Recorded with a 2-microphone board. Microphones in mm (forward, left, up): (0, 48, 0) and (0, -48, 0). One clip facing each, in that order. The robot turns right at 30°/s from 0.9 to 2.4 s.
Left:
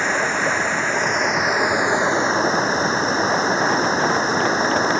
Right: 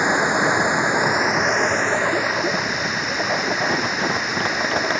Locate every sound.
0.0 s running water: 15° right; by 5.0 s 30° left